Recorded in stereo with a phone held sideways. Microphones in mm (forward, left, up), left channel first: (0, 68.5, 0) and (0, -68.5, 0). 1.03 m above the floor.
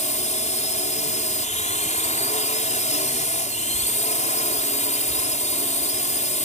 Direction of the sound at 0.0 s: 65° left (ahead or behind).